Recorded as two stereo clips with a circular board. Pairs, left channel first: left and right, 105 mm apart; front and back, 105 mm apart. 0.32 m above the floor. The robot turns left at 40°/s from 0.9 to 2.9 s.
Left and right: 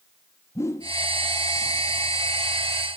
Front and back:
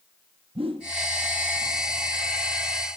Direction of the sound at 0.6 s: 155° left.